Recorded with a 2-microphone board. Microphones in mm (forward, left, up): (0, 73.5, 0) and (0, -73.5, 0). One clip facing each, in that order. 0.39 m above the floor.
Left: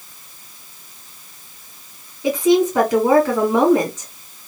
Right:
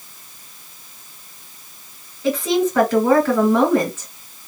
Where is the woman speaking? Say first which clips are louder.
Left 3 dB; 15° left (ahead or behind), 2 m.